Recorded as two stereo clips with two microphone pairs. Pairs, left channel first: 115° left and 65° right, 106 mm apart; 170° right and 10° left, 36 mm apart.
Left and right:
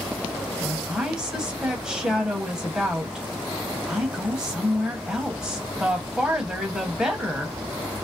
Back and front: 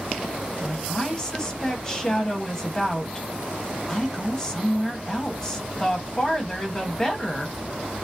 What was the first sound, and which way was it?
A woman speaking, 145° right.